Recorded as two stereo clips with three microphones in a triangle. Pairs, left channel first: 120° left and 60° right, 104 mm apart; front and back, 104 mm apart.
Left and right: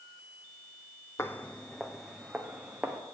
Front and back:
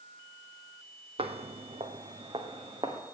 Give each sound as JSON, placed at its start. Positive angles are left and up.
{"t": 1.2, "sound": "footsteps", "azimuth_deg": 180, "distance_m": 0.6}